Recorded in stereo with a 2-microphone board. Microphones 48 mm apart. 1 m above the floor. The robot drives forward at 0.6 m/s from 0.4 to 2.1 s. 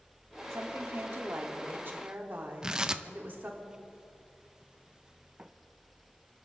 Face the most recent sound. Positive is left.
turn(degrees=-15)  # may be behind; listen again after turning